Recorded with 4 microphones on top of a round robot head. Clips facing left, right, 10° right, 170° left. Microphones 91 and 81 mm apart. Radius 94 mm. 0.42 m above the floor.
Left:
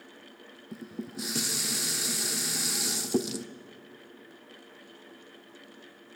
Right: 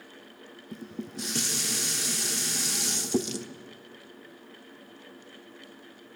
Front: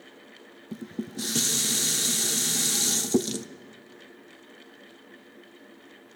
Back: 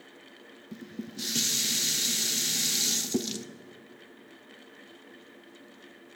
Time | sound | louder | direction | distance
0.7 | dishes clattering | even, front 5 dB | 5° left | 0.7 m